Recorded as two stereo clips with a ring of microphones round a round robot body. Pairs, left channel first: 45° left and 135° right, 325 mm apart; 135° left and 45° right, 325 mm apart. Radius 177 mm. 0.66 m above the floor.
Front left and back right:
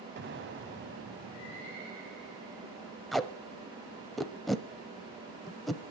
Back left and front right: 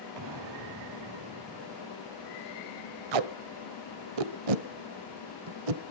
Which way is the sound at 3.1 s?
45° right.